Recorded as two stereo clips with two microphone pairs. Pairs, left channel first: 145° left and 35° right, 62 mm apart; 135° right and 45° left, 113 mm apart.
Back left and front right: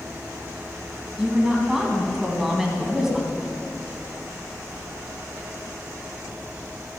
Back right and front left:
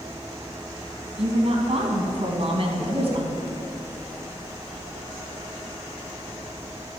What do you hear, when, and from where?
1.2 s a woman speaking: 40° left, 2 m